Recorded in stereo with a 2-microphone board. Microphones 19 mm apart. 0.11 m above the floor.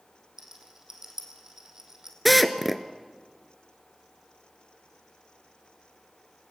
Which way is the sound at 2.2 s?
5° right (ahead or behind).